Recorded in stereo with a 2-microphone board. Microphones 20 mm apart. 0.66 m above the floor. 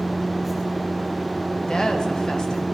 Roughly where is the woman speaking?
Left.